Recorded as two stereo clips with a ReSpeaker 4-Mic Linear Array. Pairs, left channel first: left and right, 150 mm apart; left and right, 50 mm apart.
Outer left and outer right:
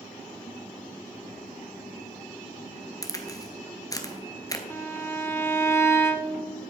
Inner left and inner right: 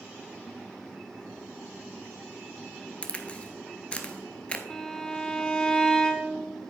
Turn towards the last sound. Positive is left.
turn(degrees=15)  # may be behind; listen again after turning